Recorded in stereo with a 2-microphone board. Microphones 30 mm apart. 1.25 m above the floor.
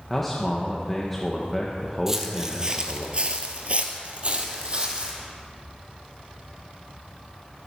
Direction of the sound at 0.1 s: 5° left (ahead or behind).